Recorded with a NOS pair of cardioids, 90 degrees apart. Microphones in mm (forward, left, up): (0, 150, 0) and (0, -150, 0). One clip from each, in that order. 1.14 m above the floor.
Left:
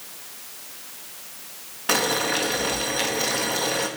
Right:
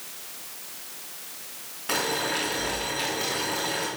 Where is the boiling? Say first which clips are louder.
Left 4 dB; 50° left, 2 m.